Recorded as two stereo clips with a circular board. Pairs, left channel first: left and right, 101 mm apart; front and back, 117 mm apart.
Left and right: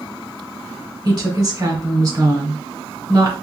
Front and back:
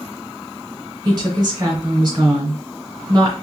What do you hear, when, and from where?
1.1 s a woman speaking: 130° right, 1.7 m